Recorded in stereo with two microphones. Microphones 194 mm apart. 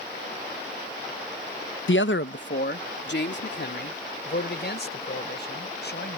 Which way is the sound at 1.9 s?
85° left.